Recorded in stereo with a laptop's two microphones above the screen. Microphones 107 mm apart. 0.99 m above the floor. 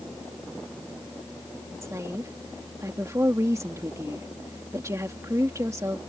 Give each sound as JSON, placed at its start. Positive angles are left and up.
{"t": 1.8, "sound": "a woman speaking", "side_deg": -25}